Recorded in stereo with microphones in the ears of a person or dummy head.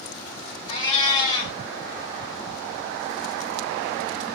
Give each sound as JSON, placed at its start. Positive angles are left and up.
{"t": 0.7, "sound": "a cat meowing", "side_deg": 25, "distance_m": 1.9}